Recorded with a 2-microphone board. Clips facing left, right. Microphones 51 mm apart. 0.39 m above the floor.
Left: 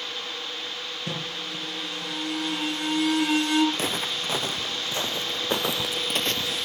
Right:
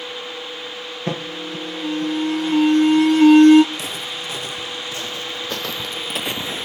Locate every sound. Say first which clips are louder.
1.1 s an alarm: right 8 dB; 40° right (ahead or behind), 5.5 m
3.7 s footsteps: even; 35° left (ahead or behind), 2.5 m; by 6.7 s 40° right (ahead or behind), 0.5 m